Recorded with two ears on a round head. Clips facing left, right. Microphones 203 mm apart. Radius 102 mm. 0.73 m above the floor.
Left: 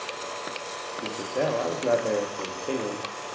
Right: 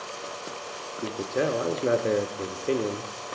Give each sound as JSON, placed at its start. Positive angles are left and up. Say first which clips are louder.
{"t": 1.0, "sound": "a man speaking", "louder": "right 1 dB", "side_deg": -20, "distance_m": 0.6}